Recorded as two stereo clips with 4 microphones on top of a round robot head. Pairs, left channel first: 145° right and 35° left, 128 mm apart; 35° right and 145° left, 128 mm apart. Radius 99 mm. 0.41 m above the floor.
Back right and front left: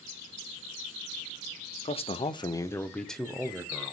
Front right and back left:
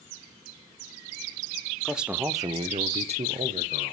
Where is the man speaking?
125° right, 1.2 m; by 3.9 s 115° left, 2 m.